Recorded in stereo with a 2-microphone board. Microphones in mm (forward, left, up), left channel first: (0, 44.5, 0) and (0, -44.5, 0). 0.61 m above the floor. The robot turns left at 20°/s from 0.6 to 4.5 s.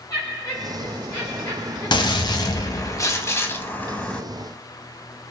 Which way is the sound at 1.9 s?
60° left.